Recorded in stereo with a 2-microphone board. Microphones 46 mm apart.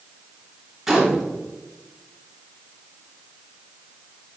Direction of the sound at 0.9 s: 5° right (ahead or behind).